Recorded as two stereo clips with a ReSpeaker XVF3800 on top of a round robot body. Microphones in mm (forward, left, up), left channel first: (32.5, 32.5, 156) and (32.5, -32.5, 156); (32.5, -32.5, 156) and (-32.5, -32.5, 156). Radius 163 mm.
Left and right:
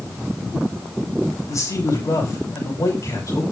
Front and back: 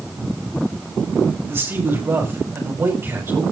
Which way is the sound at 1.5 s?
125° left.